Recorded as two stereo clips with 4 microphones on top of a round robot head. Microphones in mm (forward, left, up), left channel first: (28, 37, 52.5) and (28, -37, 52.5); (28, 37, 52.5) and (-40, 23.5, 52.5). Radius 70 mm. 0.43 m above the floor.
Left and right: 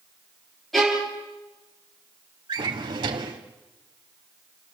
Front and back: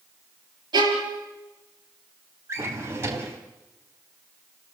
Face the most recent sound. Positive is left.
turn(degrees=-115)